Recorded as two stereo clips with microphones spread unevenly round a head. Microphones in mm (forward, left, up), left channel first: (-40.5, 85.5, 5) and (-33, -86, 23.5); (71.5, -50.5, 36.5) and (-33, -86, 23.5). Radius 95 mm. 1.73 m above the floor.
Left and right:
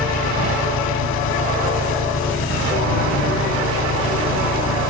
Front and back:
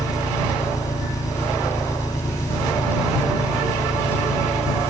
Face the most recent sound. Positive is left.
turn(degrees=90)